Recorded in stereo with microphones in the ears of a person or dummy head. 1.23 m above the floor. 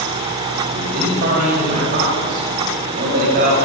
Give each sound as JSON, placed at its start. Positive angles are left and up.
{"t": 0.7, "sound": "a man speaking", "side_deg": -50, "distance_m": 7.0}